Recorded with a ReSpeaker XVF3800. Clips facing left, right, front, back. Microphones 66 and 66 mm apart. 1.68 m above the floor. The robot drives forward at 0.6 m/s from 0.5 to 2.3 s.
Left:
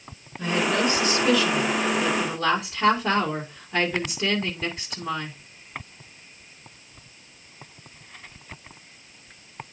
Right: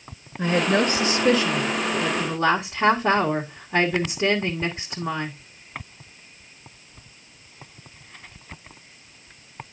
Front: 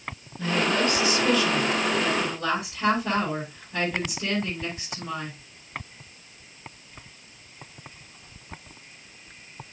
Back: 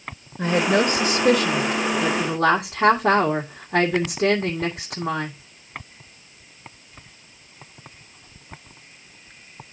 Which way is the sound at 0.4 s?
135° right.